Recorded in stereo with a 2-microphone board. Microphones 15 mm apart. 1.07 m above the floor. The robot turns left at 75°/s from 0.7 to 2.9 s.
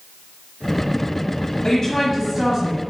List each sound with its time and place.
1.6 s a woman speaking: 45° left, 1.3 m; by 2.8 s 40° right, 1.3 m